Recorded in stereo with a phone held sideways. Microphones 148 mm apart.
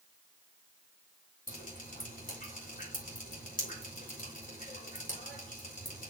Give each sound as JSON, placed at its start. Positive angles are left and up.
{"t": 1.5, "sound": "dripping", "side_deg": 65, "distance_m": 3.5}